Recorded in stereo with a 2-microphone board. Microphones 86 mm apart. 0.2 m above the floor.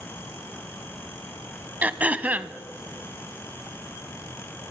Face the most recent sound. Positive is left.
turn(degrees=-20)  # may be behind; listen again after turning